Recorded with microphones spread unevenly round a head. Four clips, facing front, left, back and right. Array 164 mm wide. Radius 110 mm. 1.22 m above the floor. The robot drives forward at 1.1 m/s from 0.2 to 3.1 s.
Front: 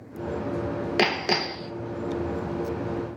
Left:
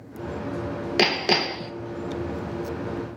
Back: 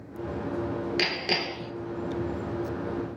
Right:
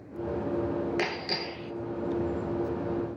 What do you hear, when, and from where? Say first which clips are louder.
1.0 s hammering: left 9 dB, front 5 dB; 55° left, 1.1 m; by 1.7 s 100° left, 0.9 m